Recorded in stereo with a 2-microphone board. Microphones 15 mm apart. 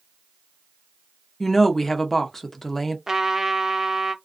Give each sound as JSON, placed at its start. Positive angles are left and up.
{"t": 1.4, "sound": "a woman speaking", "side_deg": 20, "distance_m": 0.6}
{"t": 3.1, "sound": "a trumpet", "side_deg": -35, "distance_m": 0.6}